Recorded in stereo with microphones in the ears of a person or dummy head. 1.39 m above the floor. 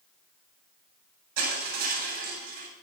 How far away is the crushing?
About 8 m.